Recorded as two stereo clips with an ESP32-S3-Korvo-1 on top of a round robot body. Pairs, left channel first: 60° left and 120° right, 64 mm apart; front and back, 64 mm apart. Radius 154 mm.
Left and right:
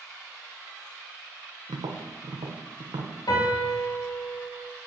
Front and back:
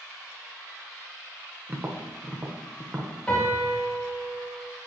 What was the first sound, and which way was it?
Tapping, 120° right.